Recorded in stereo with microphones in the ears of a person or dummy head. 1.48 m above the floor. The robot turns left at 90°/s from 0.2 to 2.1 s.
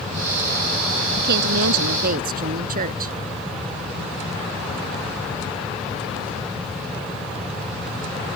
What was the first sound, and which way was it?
A woman speaking, 45° right.